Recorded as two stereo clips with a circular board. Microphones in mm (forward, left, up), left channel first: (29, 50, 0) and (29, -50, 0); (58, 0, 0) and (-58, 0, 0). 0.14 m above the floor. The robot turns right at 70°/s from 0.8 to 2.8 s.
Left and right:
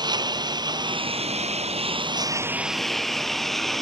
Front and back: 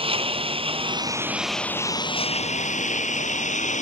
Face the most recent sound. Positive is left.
turn(degrees=0)